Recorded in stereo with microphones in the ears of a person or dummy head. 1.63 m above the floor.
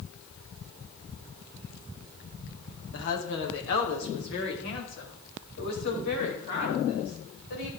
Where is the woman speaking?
70° left (ahead or behind), 2 m; by 7.7 s 55° left (ahead or behind), 8 m.